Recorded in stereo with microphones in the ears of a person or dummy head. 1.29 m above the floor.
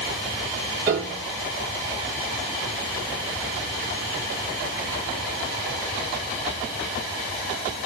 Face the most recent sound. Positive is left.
turn(degrees=-15)  # may be behind; listen again after turning